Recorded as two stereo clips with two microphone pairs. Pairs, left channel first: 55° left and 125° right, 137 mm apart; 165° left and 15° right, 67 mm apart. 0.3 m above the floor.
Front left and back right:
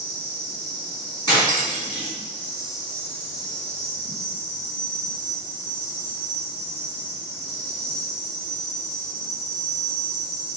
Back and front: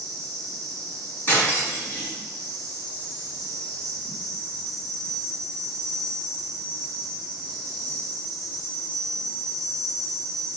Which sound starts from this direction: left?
Cutlery clinking, at 1.3 s.